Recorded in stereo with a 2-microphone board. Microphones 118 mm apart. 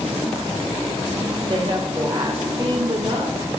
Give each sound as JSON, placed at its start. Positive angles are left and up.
{"t": 1.5, "sound": "a woman speaking", "side_deg": -45, "distance_m": 3.5}